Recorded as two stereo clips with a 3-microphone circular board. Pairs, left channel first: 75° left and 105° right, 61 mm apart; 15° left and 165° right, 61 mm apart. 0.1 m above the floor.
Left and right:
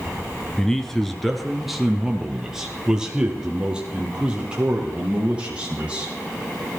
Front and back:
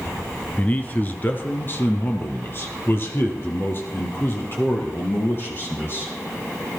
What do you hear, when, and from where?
0.6 s a man speaking: 10° left, 1.1 m; by 6.1 s 35° right, 3.5 m